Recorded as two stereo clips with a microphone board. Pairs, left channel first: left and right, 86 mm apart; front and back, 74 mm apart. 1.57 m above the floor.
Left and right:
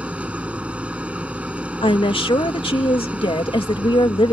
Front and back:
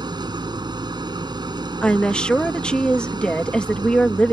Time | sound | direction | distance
0.0 | an engine running | 165° right | ?
1.8 | a woman speaking | 80° left | ?